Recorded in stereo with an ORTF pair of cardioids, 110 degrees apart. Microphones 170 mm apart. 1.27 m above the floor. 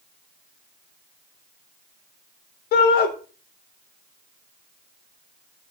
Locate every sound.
2.7 s a shout: 70° left, 3.5 m